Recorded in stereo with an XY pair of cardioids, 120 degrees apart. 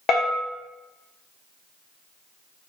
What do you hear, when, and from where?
0.1 s a bell: 50° left, 0.7 m